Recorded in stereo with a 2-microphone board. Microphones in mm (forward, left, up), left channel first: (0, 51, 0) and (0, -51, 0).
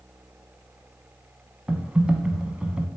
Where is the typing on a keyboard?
10° right (ahead or behind), 0.5 m.